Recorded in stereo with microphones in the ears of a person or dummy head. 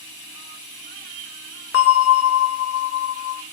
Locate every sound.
0.0 s running water: 30° left (ahead or behind), 1.7 m
1.7 s a bell: 70° left (ahead or behind), 0.5 m